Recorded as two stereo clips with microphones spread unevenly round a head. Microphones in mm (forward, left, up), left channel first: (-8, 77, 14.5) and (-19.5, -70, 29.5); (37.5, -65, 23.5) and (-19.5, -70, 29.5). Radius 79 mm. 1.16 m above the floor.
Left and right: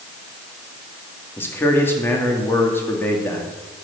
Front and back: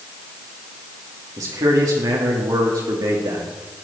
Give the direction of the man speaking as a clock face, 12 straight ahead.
7 o'clock.